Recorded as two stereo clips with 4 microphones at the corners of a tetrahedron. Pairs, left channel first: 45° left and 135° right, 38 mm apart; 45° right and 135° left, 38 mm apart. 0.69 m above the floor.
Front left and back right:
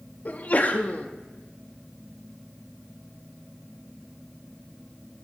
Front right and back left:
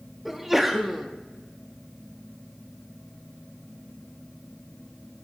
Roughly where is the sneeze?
Ahead left.